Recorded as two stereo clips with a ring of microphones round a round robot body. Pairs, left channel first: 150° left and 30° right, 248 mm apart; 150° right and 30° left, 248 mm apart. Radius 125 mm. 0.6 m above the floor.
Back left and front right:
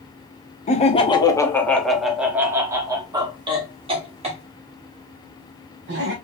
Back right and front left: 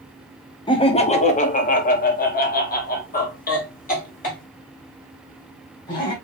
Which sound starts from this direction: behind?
Laughter, at 0.7 s.